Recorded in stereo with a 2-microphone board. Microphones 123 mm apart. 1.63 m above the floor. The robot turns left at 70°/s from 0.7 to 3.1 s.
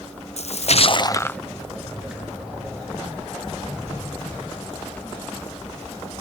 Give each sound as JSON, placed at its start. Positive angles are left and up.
{"t": 0.4, "sound": "a splash", "azimuth_deg": 60}